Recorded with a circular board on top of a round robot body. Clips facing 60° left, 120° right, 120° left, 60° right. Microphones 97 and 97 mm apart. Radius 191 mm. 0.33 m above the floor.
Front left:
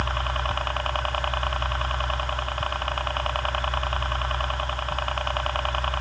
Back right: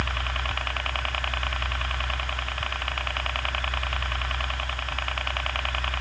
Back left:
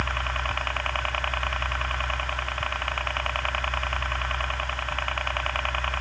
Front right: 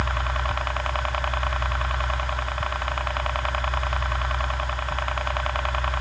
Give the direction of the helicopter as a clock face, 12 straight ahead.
12 o'clock.